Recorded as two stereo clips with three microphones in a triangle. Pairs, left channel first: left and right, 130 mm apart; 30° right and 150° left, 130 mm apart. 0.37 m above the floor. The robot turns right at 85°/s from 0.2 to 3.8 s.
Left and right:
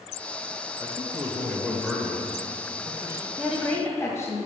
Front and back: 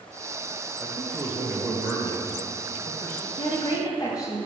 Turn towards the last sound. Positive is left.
turn(degrees=25)